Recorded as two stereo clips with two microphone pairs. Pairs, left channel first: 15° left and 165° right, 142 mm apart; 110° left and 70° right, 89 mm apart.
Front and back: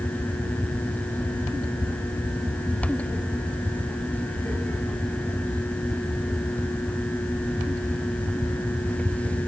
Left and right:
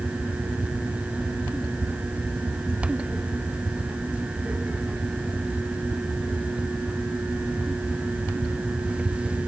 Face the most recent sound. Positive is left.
No sound to turn to.